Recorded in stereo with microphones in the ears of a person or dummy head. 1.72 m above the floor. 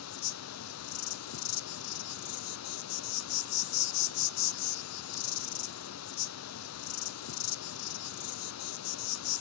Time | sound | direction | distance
0.0 | an insect | 85° left | 0.8 m